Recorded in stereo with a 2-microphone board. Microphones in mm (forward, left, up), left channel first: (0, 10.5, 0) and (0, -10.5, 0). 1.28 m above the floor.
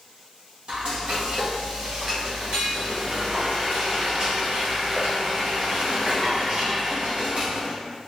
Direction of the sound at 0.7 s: 55° right (ahead or behind).